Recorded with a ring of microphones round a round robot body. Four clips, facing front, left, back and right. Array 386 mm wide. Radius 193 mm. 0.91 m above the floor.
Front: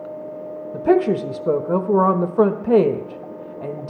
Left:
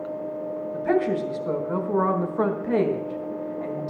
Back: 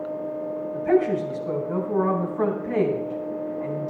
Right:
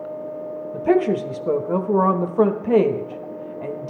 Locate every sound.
0.7 s a woman speaking: 25° right, 1.1 m